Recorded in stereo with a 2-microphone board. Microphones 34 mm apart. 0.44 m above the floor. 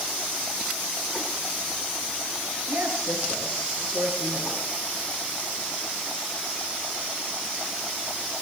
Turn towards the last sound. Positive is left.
turn(degrees=-60)  # may be behind; listen again after turning